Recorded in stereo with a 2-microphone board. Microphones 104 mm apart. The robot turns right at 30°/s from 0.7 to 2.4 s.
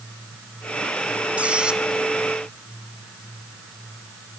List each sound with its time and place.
1.4 s a squeak: 10° right (ahead or behind), 1.2 m